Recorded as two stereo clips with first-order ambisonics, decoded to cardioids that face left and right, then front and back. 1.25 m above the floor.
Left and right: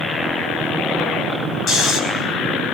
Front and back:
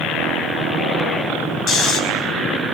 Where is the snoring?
40° left, 5 m.